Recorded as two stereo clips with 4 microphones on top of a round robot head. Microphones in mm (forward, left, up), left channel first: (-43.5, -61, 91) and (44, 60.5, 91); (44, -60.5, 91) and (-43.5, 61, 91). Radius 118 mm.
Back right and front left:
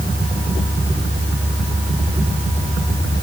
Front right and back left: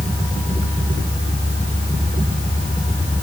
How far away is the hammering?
I don't hear hammering.